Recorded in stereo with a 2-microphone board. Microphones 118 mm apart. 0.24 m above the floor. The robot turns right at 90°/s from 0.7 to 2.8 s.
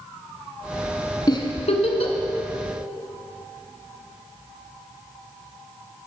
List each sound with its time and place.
1.3 s a giggle: 35° left (ahead or behind), 1.1 m; by 2.1 s 55° left (ahead or behind), 1.1 m